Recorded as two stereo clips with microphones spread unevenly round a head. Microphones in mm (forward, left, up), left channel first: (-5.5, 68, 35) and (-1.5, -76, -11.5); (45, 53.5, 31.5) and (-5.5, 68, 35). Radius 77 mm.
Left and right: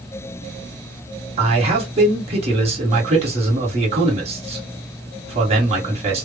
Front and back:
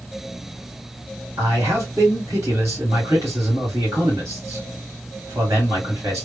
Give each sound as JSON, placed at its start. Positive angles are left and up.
{"t": 1.4, "sound": "a man speaking", "azimuth_deg": -140, "distance_m": 1.8}